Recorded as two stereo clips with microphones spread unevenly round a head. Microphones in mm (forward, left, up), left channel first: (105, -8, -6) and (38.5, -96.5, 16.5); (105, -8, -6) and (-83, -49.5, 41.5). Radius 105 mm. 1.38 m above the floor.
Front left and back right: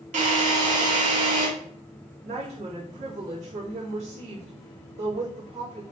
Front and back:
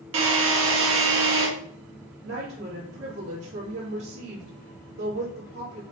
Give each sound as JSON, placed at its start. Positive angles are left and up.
{"t": 0.1, "sound": "a drill", "azimuth_deg": -150, "distance_m": 2.5}
{"t": 2.2, "sound": "a woman speaking", "azimuth_deg": -165, "distance_m": 3.0}